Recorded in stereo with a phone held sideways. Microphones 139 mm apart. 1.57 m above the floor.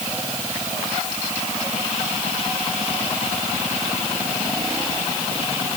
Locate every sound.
Only background noise.